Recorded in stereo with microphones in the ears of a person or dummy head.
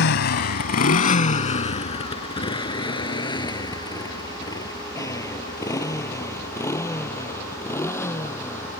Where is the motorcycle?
60° left (ahead or behind); by 8.8 s 15° left (ahead or behind).